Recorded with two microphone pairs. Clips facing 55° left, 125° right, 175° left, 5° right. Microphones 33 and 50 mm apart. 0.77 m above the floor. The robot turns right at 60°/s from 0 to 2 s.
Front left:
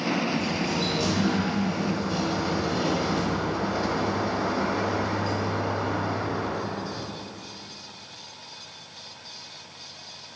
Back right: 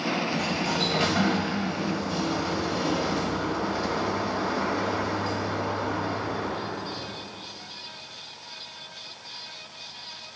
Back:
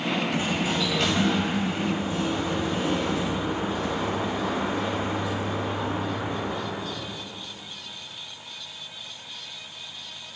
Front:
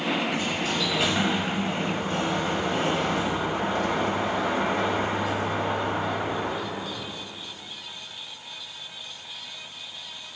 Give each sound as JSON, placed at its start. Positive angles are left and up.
{"t": 0.3, "sound": "a sliding door", "azimuth_deg": -130, "distance_m": 2.5}